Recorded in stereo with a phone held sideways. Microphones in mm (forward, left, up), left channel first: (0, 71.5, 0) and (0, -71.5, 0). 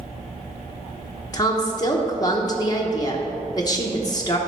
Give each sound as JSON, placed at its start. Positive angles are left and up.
{"t": 1.3, "sound": "a woman speaking", "side_deg": 25, "distance_m": 0.9}